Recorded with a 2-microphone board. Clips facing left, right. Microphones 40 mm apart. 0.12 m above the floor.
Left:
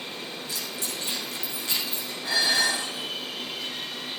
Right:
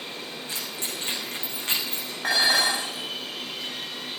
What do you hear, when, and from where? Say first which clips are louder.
0.5 s keys jangling: right 1 dB; 40° right (ahead or behind), 6.5 m; by 2.1 s 50° right (ahead or behind), 7 m
2.2 s dishes clattering: right 2 dB; 85° right, 6.5 m